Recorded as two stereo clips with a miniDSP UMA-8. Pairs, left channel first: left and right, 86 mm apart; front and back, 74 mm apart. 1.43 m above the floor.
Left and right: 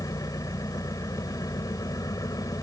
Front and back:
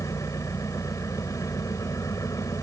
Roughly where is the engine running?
Ahead left.